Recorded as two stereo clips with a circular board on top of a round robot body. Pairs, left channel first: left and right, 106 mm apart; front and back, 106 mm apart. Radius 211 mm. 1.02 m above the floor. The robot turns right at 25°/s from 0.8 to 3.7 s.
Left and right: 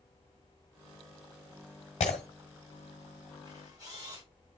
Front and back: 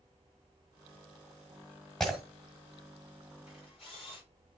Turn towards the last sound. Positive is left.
turn(degrees=-35)